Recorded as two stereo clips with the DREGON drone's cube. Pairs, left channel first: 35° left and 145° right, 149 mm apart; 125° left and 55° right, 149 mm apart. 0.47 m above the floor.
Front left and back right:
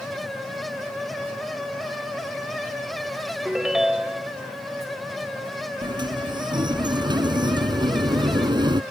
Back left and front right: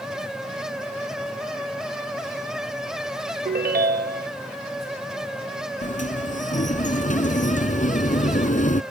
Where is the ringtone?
60° right.